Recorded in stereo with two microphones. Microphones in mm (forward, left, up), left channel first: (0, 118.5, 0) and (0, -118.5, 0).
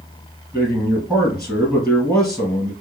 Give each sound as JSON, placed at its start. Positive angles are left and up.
{"t": 0.5, "sound": "a man speaking", "side_deg": 5, "distance_m": 2.0}